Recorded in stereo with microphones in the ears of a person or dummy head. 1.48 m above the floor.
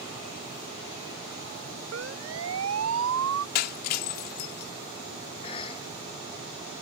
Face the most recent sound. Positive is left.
turn(degrees=30)  # may be behind; listen again after turning